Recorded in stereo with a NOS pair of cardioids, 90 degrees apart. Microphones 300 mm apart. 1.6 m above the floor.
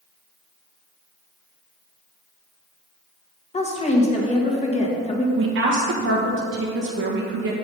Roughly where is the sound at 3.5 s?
Ahead.